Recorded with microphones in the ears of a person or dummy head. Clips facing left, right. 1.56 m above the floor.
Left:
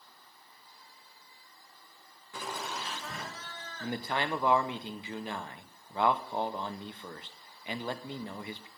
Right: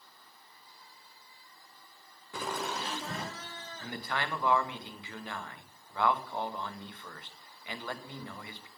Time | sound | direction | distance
2.3 | laughter | 45° right (ahead or behind) | 0.7 m
3.8 | a man speaking | 25° left (ahead or behind) | 0.7 m